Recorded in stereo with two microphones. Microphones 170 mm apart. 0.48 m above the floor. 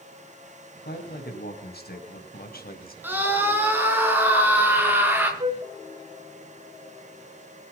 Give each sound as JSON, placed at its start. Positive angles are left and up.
{"t": 0.8, "sound": "a man speaking", "side_deg": 75, "distance_m": 4.0}
{"t": 3.0, "sound": "a scream", "side_deg": -10, "distance_m": 6.5}
{"t": 5.4, "sound": "a flute", "side_deg": -35, "distance_m": 1.1}